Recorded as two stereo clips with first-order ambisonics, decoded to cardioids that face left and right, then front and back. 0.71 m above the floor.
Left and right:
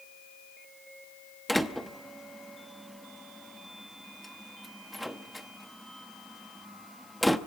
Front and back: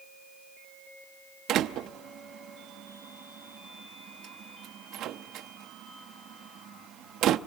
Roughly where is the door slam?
Behind.